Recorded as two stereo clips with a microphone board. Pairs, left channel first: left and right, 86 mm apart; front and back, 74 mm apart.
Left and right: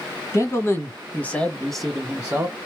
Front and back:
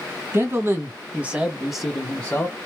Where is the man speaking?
135° left, 1.5 m; by 2.5 s 45° right, 1.1 m.